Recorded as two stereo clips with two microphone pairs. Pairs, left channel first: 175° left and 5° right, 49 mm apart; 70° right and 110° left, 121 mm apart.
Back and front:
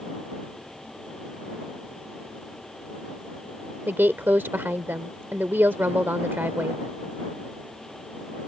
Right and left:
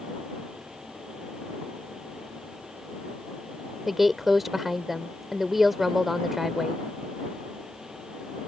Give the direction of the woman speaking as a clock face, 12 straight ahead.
11 o'clock.